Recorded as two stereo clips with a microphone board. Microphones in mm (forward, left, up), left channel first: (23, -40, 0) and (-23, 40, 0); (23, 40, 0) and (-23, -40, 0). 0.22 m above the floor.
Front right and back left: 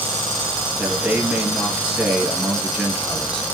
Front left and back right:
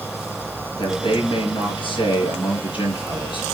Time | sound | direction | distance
0.8 | a man speaking | 35° left | 5 m